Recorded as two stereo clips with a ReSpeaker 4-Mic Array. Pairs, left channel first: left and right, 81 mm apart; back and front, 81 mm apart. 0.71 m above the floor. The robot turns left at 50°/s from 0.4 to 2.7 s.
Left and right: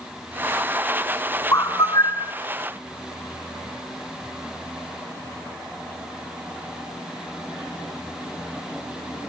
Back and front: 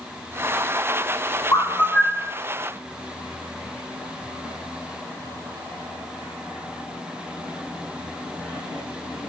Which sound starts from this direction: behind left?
A bird, at 1.5 s.